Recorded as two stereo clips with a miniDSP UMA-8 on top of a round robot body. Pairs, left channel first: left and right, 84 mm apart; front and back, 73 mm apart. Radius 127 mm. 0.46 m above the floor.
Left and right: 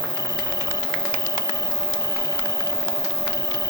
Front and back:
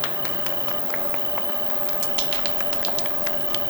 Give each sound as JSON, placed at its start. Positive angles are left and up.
{"t": 0.0, "sound": "an insect", "azimuth_deg": 35}